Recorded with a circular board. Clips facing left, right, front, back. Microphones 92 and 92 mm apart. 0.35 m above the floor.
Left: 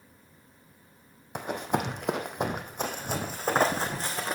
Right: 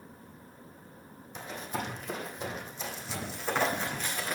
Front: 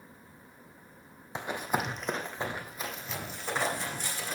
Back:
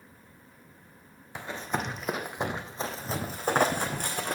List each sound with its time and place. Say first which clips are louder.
1.4 s running footsteps: left 8 dB, front 1 dB; 65° left, 0.9 m; by 4.3 s 150° left, 1.5 m